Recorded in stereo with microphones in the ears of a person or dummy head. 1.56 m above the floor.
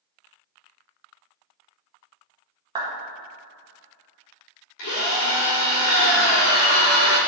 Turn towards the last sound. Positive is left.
turn(degrees=60)  # may be behind; listen again after turning